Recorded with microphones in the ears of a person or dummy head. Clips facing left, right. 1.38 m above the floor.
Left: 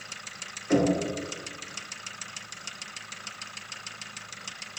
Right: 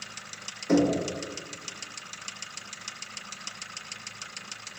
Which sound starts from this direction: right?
Knocking, at 0.7 s.